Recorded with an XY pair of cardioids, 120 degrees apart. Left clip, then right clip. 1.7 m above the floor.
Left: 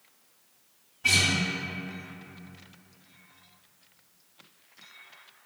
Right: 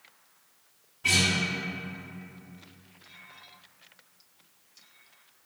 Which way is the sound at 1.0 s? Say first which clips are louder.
Left 1 dB; 15° left.